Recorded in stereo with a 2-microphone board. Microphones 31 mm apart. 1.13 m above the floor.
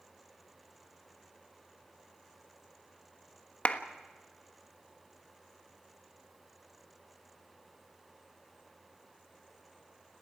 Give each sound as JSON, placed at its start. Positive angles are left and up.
{"t": 3.6, "sound": "a clap", "side_deg": 55, "distance_m": 1.3}